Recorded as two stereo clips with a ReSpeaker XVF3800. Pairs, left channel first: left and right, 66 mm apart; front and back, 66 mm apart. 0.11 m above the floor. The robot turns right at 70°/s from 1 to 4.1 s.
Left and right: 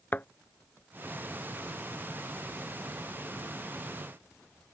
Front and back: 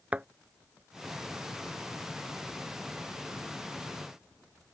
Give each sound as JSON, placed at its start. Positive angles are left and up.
{"t": 0.1, "sound": "a thud", "azimuth_deg": 125}